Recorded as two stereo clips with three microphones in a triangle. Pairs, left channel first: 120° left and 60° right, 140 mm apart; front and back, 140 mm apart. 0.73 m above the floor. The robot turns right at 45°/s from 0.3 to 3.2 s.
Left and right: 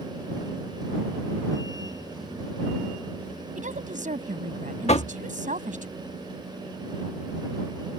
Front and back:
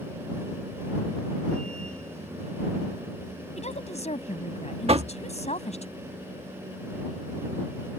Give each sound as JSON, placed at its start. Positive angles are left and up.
{"t": 3.6, "sound": "a woman speaking", "azimuth_deg": -35}
{"t": 4.9, "sound": "knocking", "azimuth_deg": 145}